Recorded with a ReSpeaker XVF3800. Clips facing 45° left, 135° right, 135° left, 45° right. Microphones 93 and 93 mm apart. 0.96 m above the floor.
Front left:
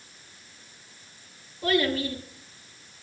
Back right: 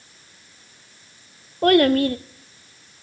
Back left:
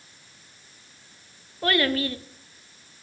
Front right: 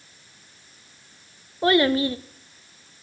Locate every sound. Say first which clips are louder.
1.6 s a child speaking: back right 10 dB, front right 5 dB; 110° right, 0.6 m